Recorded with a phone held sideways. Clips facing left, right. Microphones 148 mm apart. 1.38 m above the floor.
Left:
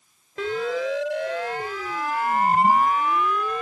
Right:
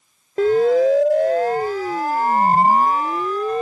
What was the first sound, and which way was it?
A siren, 45° right (ahead or behind).